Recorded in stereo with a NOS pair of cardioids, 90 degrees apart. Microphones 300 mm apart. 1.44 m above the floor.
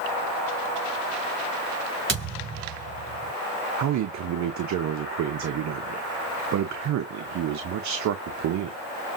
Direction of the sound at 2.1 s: 45° right.